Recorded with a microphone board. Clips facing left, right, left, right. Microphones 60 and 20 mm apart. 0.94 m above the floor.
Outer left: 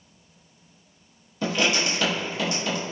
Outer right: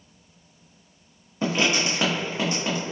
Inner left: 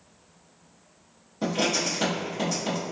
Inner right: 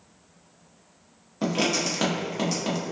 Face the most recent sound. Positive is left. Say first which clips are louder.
# outer right 1 dB, inner right 1 dB
turn(degrees=-30)  # may be behind; listen again after turning